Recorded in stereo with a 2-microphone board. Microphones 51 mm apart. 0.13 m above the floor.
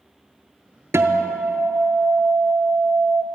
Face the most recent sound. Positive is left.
turn(degrees=-60)  # may be behind; listen again after turning